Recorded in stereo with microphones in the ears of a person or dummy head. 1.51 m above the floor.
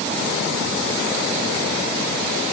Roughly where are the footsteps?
I don't hear footsteps.